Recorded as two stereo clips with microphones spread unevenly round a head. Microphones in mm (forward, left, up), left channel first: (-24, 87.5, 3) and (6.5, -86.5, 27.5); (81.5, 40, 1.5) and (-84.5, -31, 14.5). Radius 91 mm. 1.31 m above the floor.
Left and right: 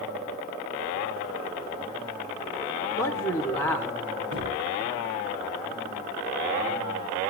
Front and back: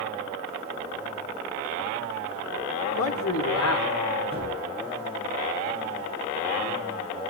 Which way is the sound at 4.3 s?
80° right.